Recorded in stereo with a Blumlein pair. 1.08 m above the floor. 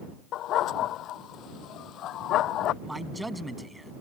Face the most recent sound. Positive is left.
turn(degrees=-5)